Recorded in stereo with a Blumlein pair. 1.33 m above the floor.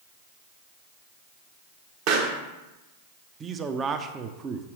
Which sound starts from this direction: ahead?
A man speaking, at 3.4 s.